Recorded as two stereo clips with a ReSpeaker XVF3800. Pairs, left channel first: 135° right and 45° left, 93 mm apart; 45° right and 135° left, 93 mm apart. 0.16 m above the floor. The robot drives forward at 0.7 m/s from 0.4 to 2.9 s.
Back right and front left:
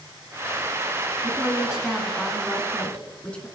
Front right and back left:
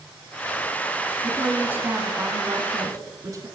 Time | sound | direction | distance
1.2 | a woman speaking | 85° left | 1.7 m